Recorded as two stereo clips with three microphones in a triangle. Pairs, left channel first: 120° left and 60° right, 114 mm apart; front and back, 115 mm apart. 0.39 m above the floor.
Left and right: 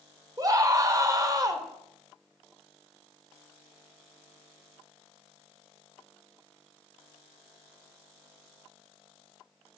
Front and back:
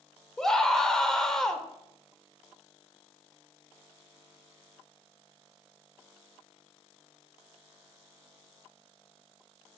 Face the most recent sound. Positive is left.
turn(degrees=-85)